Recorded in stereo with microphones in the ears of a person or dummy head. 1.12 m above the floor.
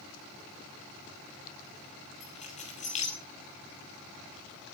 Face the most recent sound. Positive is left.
turn(degrees=35)  # may be behind; listen again after turning